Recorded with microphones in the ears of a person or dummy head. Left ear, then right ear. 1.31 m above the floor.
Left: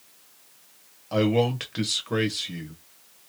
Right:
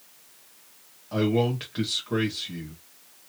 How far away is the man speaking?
About 1.3 m.